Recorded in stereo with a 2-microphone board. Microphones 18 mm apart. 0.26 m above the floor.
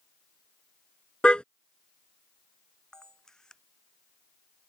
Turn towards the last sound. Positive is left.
turn(degrees=40)  # may be behind; listen again after turning